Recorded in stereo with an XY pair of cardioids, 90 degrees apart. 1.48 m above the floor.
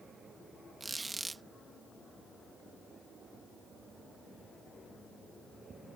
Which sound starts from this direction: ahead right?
A squeak, at 0.8 s.